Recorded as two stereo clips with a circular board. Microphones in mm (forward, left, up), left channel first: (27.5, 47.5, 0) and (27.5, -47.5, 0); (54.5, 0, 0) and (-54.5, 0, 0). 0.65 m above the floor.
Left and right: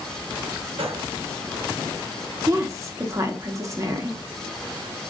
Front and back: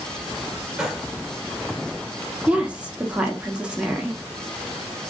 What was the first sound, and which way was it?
A gunshot, 95° right.